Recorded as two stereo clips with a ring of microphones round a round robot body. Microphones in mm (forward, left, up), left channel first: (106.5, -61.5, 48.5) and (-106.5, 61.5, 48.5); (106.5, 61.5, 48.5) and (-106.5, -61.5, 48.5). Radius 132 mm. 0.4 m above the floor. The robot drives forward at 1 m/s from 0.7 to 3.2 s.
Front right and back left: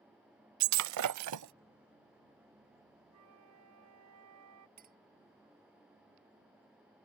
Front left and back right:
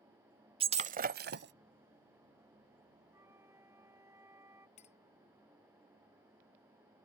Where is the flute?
130° left.